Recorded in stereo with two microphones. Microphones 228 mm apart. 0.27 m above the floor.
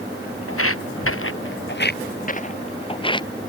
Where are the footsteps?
80° left; by 3.5 s 15° left (ahead or behind).